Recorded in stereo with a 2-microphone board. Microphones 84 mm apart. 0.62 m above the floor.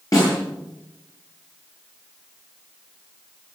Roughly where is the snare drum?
Left.